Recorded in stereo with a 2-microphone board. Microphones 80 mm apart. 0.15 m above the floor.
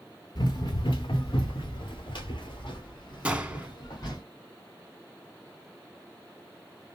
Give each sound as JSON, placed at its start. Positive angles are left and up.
{"t": 0.3, "sound": "running footsteps", "side_deg": 60, "distance_m": 1.0}
{"t": 3.2, "sound": "a gunshot", "side_deg": -15, "distance_m": 0.5}